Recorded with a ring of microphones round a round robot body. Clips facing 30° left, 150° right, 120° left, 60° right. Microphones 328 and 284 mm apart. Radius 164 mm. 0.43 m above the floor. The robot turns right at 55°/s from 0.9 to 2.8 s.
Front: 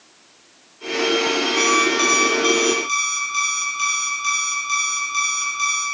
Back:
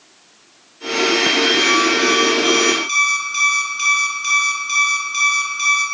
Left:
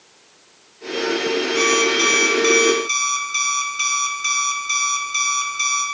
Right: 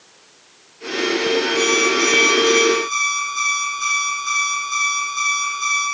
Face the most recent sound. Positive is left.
turn(degrees=125)